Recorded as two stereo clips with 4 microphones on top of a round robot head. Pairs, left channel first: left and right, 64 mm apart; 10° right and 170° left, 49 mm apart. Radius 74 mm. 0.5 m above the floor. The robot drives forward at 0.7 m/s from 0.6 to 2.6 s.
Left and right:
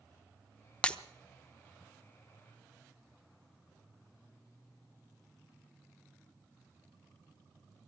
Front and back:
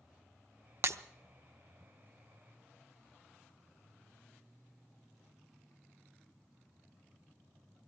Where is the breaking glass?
160° left, 0.8 m; by 1.0 s 165° left, 0.9 m.